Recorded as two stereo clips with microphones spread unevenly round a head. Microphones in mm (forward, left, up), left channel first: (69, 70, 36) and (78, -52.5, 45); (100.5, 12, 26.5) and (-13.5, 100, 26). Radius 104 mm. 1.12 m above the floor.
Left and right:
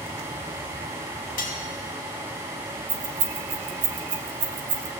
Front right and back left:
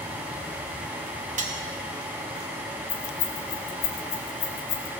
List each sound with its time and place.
1.4 s cutlery clinking: 110° left, 1.8 m
2.9 s keys jangling: 80° right, 1.1 m